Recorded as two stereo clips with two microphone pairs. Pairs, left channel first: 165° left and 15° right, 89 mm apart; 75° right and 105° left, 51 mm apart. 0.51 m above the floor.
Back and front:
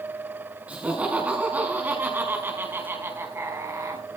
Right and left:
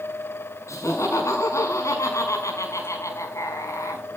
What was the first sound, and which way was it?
Laughter, 90° right.